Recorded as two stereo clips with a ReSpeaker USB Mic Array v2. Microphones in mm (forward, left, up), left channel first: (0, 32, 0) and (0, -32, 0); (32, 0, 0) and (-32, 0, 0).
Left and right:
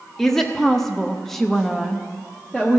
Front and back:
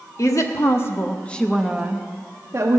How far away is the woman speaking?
About 1.4 m.